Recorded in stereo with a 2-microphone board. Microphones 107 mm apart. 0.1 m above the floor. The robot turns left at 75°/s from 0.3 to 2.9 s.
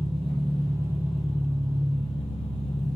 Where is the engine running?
110° right, 0.9 m; by 3.0 s 55° left, 0.9 m.